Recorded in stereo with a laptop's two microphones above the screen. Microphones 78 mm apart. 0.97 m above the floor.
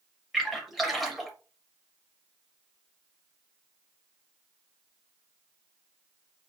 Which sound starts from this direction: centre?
A splash, at 0.3 s.